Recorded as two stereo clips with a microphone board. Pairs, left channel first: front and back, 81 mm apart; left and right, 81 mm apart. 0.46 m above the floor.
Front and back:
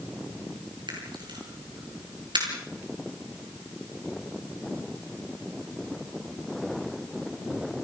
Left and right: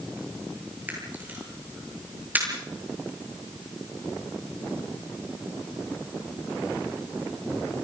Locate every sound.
0.9 s a camera shutter: 160° right, 9 m